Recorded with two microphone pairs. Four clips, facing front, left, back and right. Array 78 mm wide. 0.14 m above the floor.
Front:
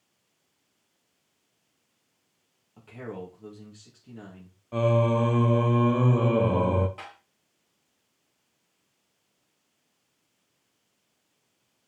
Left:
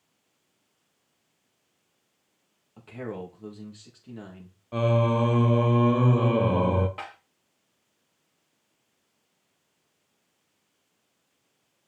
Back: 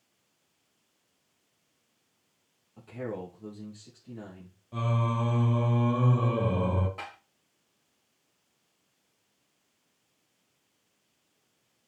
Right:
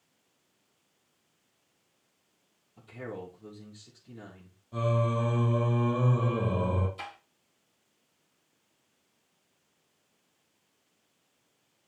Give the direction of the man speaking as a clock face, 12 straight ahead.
9 o'clock.